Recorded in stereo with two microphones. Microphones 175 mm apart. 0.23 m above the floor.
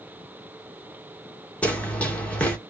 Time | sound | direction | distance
1.6 | running footsteps | 5° left (ahead or behind) | 2 m